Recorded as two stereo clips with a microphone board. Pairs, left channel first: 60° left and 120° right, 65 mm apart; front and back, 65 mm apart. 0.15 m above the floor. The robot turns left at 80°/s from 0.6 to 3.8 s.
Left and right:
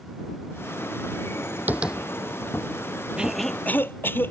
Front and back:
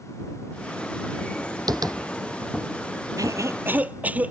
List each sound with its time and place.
1.7 s tapping: straight behind; by 2.0 s 155° left
3.2 s a cough: 165° left; by 4.3 s 115° left